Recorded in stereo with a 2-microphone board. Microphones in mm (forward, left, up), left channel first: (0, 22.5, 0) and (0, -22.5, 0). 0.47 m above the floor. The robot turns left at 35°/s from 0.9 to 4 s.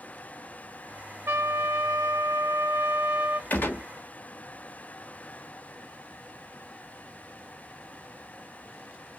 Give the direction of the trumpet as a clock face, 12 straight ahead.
2 o'clock.